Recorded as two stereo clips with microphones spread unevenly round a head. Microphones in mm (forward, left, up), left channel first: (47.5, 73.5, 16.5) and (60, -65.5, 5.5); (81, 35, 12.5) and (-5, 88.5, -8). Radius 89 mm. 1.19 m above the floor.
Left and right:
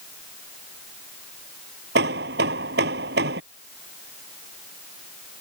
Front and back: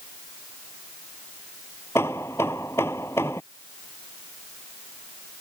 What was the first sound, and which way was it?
Hammering, 110° right.